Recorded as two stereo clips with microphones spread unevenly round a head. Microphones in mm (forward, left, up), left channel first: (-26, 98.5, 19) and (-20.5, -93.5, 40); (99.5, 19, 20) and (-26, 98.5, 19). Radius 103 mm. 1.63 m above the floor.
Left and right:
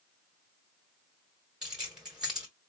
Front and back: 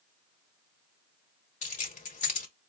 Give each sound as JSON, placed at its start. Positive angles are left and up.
{"t": 1.6, "sound": "keys jangling", "azimuth_deg": -5, "distance_m": 1.3}